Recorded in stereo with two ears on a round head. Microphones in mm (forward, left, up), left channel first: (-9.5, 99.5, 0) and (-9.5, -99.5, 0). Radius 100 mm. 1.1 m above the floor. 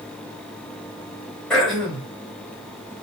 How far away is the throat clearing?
About 4.5 m.